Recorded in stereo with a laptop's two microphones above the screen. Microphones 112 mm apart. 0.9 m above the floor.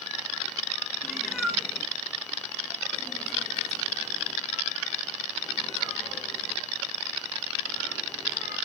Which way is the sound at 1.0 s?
5° right (ahead or behind).